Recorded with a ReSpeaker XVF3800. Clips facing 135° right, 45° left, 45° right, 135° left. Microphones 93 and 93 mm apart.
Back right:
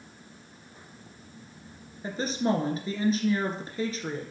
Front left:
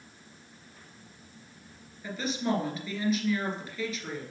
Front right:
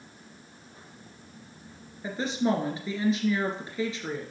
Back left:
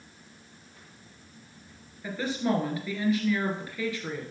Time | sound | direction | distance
2.0 | a woman speaking | 105° right | 2 m